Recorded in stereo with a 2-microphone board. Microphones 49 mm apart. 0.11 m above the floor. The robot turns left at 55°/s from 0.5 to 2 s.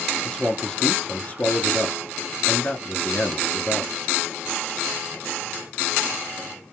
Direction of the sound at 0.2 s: 145° left.